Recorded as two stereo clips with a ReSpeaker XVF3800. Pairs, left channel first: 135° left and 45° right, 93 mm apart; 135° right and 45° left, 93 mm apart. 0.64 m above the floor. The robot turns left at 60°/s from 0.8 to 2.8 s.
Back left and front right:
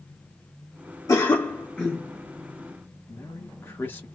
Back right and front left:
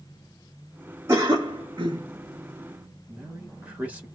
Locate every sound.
1.1 s a cough: 100° left, 1.0 m; by 2.0 s 40° left, 1.0 m
3.1 s a man speaking: 100° left, 1.3 m